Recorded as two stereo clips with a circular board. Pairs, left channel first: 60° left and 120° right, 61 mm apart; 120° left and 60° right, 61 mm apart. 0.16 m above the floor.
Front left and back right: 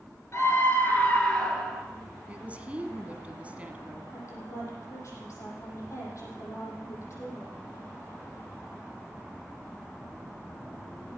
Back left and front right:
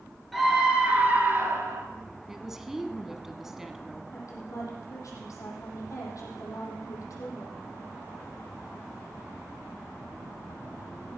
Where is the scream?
30° left, 2.5 m; by 1.8 s 25° right, 3 m.